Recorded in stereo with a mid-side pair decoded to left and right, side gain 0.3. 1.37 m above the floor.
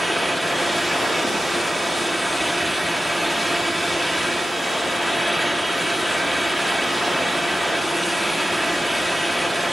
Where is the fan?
5° right, 6 m.